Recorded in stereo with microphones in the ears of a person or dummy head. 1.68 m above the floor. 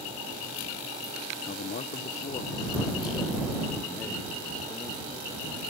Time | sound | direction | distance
1.5 | a man speaking | 50° left (ahead or behind) | ?